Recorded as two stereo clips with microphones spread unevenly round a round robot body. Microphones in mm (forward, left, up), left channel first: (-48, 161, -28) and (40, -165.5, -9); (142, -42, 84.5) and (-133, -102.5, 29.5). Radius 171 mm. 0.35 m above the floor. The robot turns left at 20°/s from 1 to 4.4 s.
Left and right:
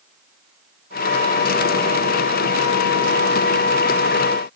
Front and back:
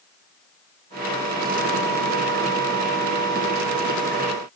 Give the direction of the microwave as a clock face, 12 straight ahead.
I don't hear a microwave.